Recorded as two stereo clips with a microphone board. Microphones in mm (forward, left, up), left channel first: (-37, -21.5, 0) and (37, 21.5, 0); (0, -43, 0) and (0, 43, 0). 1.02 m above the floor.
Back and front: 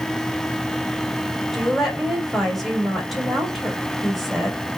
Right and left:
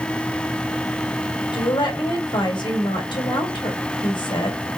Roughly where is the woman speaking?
Ahead right.